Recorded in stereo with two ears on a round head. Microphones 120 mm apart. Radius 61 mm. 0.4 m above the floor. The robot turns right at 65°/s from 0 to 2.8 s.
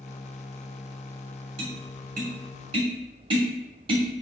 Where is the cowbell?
I don't hear a cowbell.